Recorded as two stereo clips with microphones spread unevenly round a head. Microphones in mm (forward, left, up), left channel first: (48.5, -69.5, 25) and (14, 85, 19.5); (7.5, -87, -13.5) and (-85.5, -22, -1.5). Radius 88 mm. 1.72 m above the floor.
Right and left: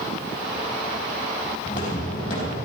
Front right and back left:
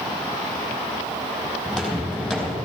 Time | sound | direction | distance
1.6 | footsteps | 125° right | 4.5 m